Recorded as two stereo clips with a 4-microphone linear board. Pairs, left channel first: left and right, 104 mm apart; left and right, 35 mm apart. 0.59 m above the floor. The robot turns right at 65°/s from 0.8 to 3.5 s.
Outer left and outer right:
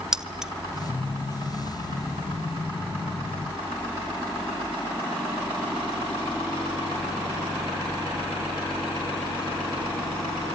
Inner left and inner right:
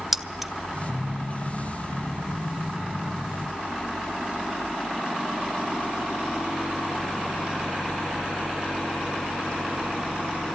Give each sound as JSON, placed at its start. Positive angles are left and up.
{"t": 0.1, "sound": "keys jangling", "side_deg": -5, "distance_m": 0.7}